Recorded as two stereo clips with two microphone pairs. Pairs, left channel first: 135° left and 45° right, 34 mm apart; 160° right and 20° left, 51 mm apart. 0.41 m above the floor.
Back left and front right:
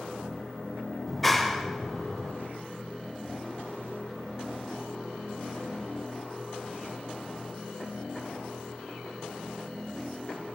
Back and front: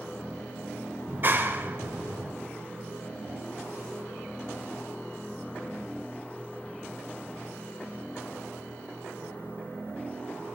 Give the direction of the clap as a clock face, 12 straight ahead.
10 o'clock.